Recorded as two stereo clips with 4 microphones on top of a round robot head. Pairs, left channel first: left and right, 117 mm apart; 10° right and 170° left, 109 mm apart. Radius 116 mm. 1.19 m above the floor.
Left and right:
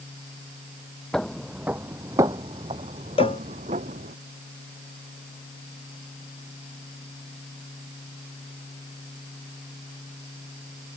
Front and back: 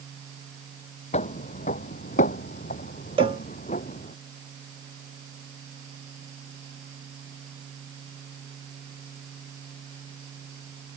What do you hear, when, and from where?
1.1 s footsteps: 5° left; by 4.2 s 50° right
3.2 s a cowbell: 130° left